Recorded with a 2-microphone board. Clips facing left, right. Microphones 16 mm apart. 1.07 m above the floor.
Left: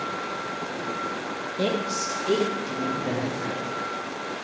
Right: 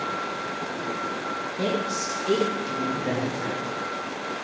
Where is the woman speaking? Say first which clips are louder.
Left 1 dB; 40° left (ahead or behind), 1.2 m; by 3.7 s 25° right (ahead or behind), 2.5 m.